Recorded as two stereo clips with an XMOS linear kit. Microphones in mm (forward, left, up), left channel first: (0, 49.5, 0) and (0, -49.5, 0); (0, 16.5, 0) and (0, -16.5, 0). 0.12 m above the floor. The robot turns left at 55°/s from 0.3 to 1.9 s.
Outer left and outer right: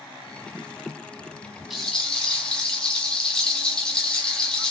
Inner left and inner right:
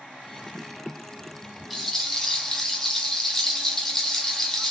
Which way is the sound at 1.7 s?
Centre (ahead or behind).